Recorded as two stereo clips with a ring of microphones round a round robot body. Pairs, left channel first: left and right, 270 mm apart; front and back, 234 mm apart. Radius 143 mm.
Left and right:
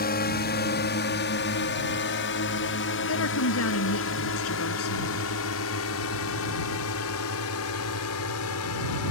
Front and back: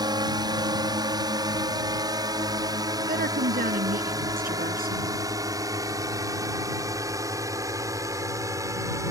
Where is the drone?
120° left; by 9.1 s 105° left.